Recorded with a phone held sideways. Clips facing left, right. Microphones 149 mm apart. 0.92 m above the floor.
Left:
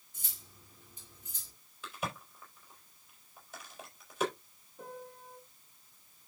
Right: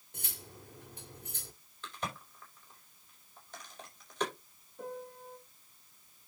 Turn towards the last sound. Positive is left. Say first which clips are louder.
# right 4 dB
turn(degrees=0)  # may be behind; listen again after turning